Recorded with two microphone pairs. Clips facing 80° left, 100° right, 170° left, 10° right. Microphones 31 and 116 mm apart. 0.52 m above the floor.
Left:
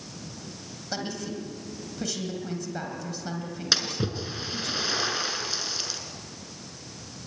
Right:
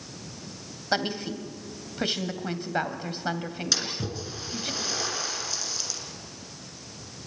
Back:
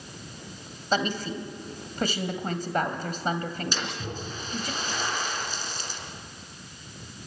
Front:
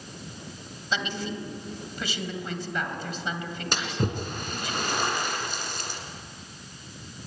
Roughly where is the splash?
Ahead.